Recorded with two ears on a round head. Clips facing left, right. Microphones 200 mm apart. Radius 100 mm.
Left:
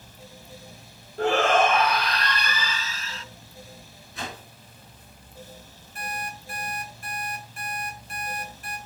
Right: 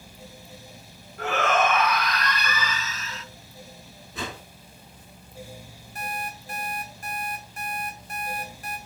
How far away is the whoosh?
About 2.5 m.